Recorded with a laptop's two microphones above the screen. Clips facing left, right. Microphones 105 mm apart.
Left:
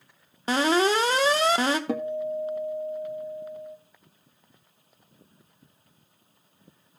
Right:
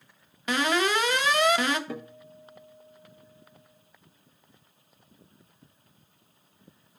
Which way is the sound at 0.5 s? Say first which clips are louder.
Left 4 dB; 30° left (ahead or behind).